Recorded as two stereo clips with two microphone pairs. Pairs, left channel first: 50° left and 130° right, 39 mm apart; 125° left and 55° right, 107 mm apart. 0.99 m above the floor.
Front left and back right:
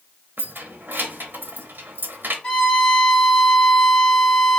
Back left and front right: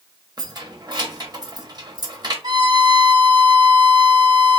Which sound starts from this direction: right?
Keys jangling, at 0.4 s.